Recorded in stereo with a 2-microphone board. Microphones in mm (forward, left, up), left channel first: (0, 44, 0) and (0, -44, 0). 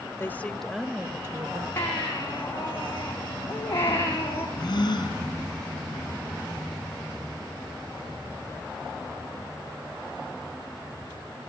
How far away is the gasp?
About 5 m.